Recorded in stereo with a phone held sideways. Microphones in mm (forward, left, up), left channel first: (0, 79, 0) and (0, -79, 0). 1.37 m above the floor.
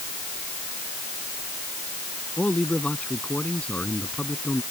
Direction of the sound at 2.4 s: 10° left (ahead or behind).